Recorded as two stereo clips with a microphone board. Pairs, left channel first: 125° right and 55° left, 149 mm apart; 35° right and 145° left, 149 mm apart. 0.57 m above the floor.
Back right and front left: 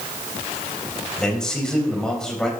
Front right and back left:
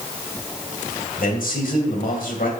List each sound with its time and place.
1.2 s a man speaking: 40° right, 3 m